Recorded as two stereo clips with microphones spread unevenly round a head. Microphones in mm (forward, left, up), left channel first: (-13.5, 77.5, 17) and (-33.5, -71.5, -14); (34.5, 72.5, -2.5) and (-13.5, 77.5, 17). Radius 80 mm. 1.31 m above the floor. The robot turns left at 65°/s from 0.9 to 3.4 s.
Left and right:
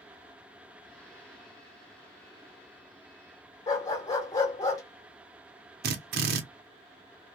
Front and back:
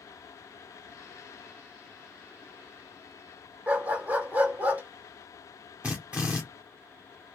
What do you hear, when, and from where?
3.7 s a dog barking: 140° left, 2.0 m
5.8 s a drill: 100° right, 0.7 m